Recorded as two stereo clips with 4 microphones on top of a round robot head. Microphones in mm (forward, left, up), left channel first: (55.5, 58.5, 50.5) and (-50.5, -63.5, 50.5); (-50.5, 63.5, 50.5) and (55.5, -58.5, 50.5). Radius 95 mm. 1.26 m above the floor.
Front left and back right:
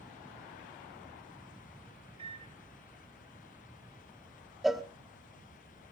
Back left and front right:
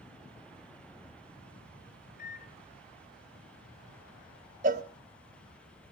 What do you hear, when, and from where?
2.2 s a microwave: 170° left, 1.0 m
4.6 s a cowbell: 45° right, 0.7 m